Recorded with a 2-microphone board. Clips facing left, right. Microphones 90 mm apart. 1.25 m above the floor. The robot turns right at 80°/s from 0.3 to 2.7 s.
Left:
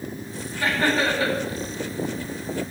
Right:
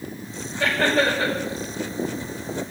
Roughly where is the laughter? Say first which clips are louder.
Right 2 dB; right.